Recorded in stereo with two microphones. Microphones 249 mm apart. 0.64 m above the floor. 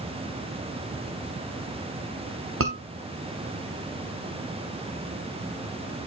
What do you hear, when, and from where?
2.6 s a scream: 55° right (ahead or behind), 1.2 m